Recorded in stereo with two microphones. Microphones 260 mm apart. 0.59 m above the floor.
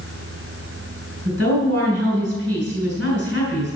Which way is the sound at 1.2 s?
65° right (ahead or behind).